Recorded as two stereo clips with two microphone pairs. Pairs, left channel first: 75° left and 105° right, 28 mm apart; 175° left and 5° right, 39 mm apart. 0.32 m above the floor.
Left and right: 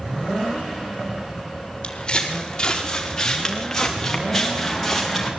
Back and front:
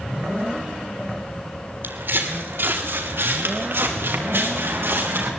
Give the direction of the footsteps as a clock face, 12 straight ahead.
11 o'clock.